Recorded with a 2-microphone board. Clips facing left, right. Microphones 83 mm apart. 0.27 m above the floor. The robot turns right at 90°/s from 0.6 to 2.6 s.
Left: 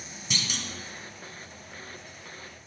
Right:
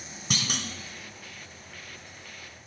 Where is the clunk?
50° right (ahead or behind), 1.2 m; by 0.7 s 45° right (ahead or behind), 1.2 m.